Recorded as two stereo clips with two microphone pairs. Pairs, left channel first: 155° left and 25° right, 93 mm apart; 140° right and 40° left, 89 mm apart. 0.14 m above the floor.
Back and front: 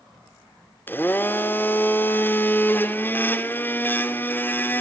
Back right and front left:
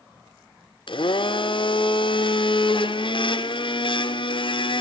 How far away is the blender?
About 0.8 m.